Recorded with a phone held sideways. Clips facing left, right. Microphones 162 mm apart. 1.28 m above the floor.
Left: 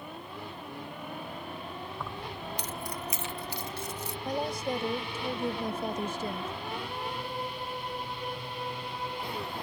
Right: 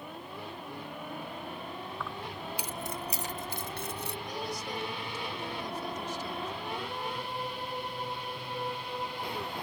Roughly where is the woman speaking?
Left.